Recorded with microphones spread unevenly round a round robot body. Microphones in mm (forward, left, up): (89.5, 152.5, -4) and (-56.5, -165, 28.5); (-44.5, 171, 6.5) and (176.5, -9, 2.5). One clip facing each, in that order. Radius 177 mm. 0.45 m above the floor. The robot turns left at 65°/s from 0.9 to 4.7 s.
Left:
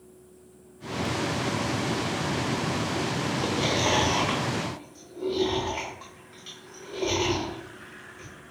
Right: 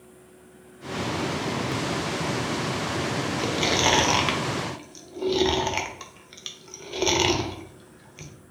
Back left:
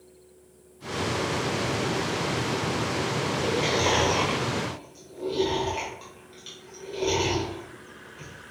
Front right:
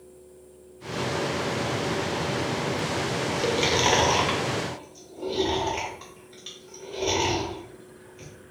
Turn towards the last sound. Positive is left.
turn(degrees=-125)